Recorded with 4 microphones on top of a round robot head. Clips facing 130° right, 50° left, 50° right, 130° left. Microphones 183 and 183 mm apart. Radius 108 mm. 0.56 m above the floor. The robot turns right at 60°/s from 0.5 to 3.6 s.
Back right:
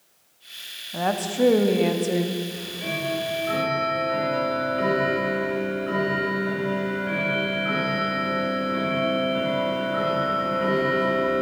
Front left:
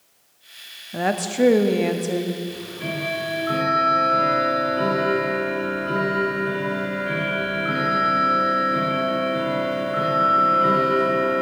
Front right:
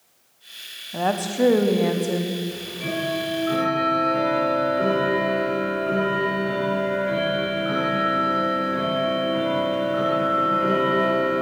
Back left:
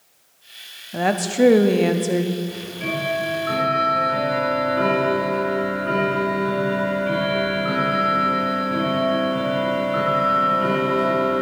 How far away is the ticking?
About 4 m.